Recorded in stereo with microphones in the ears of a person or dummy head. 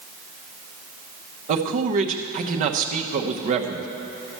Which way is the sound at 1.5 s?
45° right (ahead or behind).